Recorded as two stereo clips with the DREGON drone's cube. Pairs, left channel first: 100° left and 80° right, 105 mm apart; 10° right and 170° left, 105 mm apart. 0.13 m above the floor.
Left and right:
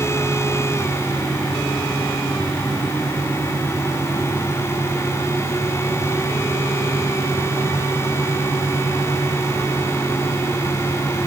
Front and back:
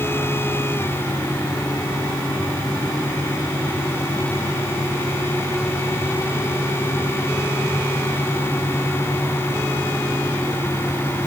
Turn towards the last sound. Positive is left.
No sound to turn to.